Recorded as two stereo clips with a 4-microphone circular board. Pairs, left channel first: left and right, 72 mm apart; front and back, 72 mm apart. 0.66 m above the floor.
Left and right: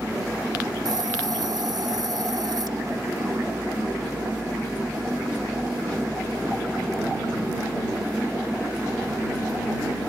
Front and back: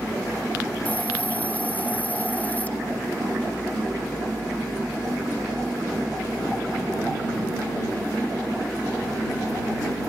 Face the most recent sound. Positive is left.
turn(degrees=-70)